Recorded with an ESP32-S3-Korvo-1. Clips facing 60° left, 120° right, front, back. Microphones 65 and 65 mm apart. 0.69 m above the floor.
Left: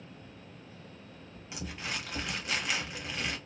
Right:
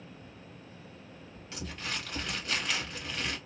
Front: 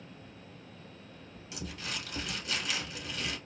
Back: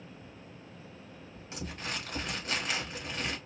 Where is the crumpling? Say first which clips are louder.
Even, back 2 dB; 135° left, 1.1 m.